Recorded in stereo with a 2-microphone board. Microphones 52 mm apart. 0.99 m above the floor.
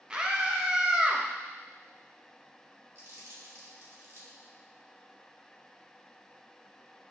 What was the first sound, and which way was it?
A scream, 20° right (ahead or behind).